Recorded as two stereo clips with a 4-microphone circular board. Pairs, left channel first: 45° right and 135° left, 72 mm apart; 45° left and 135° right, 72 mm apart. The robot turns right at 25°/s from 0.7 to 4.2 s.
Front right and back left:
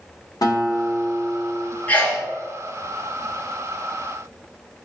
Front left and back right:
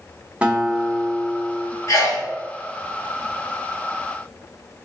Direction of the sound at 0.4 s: 65° right.